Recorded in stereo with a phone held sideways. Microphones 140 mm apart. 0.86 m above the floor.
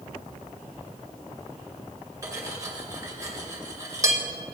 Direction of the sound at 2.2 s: 25° right (ahead or behind).